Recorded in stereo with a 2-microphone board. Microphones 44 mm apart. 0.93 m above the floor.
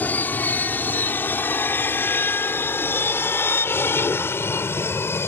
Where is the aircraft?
45° left (ahead or behind); by 5.3 s 70° left (ahead or behind).